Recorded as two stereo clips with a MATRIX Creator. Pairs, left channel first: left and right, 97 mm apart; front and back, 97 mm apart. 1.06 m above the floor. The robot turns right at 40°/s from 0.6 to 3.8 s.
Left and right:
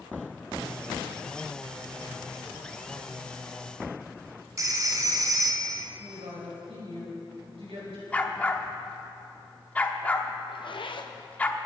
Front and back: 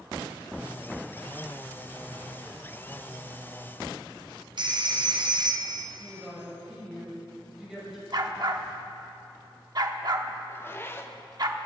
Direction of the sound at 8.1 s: 160° left.